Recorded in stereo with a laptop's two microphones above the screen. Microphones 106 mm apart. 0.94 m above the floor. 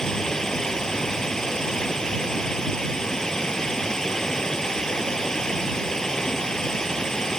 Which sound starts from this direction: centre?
Running water, at 0.0 s.